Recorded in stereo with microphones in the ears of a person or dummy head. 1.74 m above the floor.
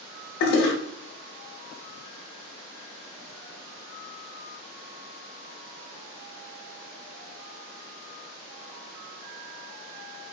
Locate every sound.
0.4 s a toilet flushing: 65° left (ahead or behind), 0.6 m